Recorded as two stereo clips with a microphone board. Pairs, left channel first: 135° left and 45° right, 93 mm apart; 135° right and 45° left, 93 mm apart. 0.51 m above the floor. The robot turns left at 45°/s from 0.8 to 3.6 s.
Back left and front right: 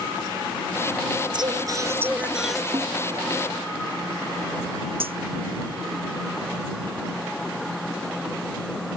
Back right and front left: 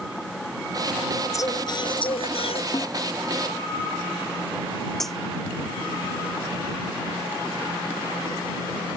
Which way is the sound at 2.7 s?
85° right.